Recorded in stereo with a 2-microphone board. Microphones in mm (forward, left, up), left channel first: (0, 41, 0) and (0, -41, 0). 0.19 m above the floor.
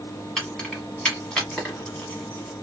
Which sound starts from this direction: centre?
Keys jangling, at 0.4 s.